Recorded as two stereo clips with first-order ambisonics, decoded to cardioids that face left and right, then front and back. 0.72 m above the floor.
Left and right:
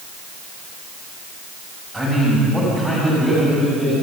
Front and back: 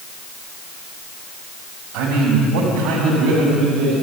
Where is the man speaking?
175° right, 4.5 m; by 3.9 s 170° left, 6 m.